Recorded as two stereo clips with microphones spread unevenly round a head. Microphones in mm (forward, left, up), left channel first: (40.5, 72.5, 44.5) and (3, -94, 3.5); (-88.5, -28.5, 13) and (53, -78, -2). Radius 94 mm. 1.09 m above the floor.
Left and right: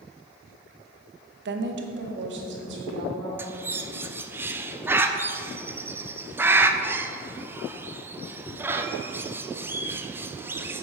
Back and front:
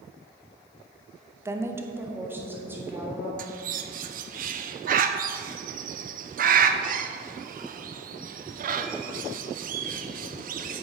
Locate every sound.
1.4 s a woman speaking: 90° right, 0.9 m; by 3.3 s 95° right, 3.5 m
3.4 s a bird: 30° right, 0.6 m